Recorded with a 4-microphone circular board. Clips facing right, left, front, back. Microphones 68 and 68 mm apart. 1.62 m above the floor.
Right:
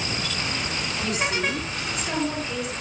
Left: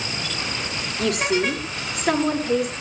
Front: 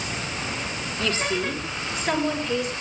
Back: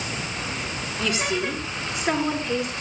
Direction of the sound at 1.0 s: 105° left.